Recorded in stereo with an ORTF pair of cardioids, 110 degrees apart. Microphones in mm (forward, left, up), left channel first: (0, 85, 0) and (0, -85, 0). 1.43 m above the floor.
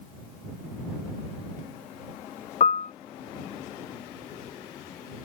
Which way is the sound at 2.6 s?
45° left.